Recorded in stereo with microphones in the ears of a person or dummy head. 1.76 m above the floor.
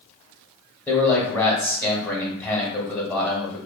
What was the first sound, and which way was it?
A man speaking, 10° left (ahead or behind).